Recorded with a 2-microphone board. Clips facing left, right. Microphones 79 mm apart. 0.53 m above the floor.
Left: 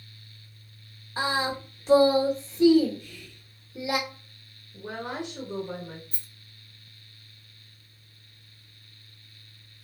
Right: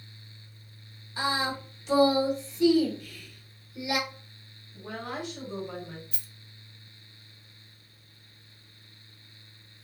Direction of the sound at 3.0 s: 25° left (ahead or behind).